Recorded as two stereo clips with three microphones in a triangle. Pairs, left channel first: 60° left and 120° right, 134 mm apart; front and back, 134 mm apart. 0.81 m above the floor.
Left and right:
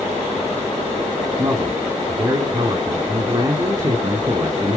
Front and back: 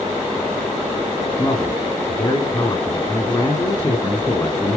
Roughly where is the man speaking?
Ahead right.